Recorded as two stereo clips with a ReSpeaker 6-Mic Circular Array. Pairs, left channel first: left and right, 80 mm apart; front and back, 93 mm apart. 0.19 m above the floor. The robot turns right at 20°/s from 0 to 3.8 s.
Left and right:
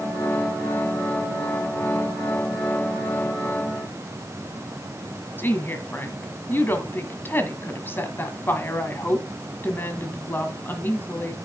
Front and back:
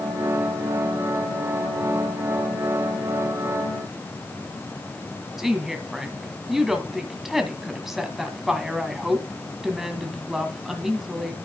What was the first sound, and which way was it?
A woman speaking, 100° left.